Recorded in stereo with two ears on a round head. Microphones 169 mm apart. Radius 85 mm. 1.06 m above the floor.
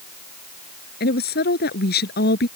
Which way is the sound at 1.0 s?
60° left (ahead or behind).